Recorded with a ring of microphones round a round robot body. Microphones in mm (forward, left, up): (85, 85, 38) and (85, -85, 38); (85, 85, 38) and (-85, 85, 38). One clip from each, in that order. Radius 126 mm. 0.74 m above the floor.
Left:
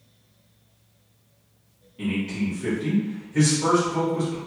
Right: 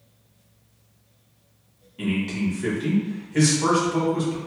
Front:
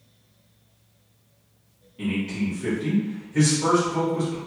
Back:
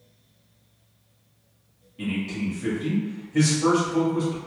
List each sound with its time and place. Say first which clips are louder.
2.0 s a man speaking: right 1 dB, front 2 dB; 100° right, 1.3 m